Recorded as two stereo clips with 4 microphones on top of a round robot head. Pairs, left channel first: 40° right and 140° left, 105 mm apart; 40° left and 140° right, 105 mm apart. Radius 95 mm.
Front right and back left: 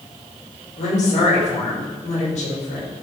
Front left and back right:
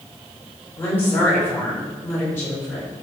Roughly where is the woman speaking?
Ahead right.